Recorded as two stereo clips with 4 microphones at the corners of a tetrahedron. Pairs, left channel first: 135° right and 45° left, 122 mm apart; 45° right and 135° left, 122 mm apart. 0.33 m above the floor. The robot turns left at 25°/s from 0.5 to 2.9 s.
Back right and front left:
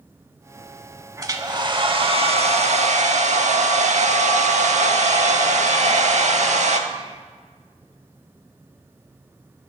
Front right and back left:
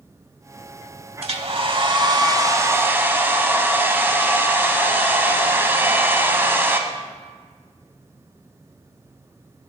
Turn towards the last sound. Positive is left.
turn(degrees=65)